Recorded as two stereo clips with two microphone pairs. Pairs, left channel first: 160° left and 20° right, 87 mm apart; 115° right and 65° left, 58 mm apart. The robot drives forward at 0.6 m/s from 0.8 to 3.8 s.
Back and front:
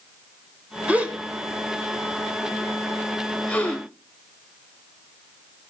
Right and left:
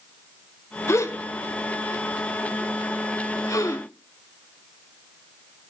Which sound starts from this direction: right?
A gasp, at 0.9 s.